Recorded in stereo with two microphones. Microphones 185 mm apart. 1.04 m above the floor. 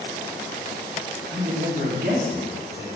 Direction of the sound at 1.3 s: 80° right.